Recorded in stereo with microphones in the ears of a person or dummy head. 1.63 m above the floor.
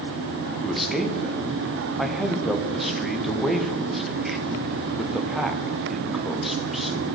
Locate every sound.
0.6 s a man speaking: 5° left (ahead or behind), 0.7 m